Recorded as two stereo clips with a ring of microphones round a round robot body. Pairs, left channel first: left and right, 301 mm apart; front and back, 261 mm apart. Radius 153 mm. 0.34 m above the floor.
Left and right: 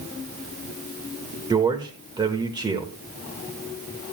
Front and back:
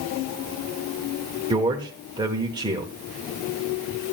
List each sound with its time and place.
1.5 s a man speaking: 140° right, 0.9 m